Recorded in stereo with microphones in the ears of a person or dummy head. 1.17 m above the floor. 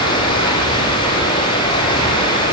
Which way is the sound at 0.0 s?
30° left (ahead or behind).